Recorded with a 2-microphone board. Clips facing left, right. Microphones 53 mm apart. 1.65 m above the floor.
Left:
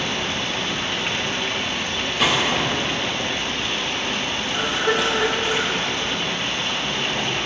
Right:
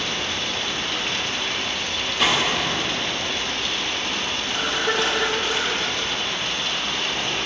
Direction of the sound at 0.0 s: 25° left (ahead or behind).